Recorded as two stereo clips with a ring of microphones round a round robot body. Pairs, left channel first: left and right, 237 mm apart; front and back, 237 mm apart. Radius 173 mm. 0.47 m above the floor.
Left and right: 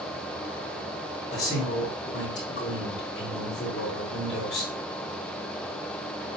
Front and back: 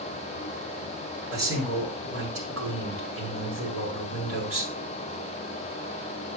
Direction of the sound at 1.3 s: 160° left.